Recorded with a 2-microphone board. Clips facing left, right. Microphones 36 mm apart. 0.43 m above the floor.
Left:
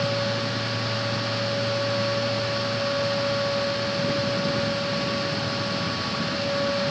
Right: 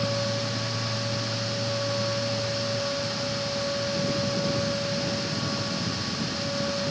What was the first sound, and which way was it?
Only background noise.